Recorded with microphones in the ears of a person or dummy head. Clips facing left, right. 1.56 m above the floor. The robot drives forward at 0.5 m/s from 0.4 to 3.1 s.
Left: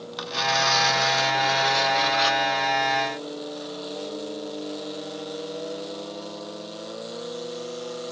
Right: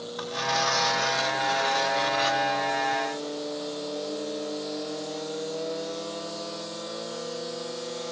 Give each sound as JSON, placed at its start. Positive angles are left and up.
{"t": 0.2, "sound": "tearing paper", "side_deg": 50, "distance_m": 3.0}